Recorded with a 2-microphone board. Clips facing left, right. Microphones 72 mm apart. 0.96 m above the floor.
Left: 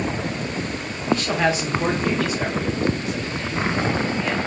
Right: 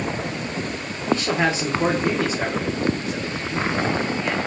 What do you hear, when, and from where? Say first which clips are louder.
1.1 s a man speaking: even; 30° right (ahead or behind), 2.5 m